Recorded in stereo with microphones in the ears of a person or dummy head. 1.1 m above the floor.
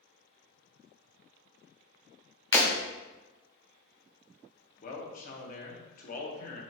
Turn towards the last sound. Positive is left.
turn(degrees=45)  # may be behind; listen again after turning